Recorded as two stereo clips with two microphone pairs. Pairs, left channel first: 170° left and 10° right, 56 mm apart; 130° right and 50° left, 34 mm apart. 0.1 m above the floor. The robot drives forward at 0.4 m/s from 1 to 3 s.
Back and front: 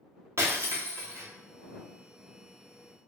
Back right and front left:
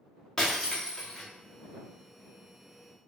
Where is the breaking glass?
50° right, 2.5 m.